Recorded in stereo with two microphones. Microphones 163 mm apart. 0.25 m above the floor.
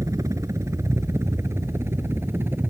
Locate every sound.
0.0 s a helicopter: 20° right (ahead or behind); by 2.7 s 15° right (ahead or behind)